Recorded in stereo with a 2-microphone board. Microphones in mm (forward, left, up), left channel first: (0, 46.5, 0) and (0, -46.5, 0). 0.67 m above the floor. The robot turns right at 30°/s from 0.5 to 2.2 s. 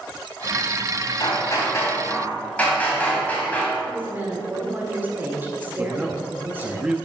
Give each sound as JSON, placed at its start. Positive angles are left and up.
{"t": 1.2, "sound": "hammering", "azimuth_deg": 135, "distance_m": 2.5}
{"t": 3.9, "sound": "a woman speaking", "side_deg": -25, "distance_m": 2.0}
{"t": 5.8, "sound": "a man speaking", "side_deg": -10, "distance_m": 0.7}